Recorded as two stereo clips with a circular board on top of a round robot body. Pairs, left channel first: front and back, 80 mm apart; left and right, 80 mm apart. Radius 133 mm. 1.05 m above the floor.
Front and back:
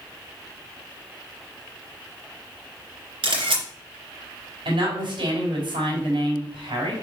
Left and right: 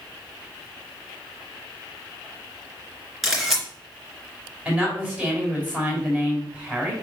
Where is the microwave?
No microwave in this recording.